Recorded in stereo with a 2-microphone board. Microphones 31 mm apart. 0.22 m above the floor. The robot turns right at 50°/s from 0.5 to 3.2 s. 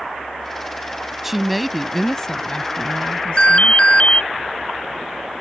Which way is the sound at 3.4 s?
40° left (ahead or behind).